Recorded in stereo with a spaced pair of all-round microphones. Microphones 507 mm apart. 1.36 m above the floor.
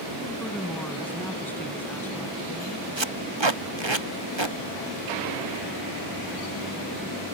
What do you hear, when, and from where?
0.4 s a woman speaking: 5° left (ahead or behind)
3.0 s tape being pulled: 55° right (ahead or behind)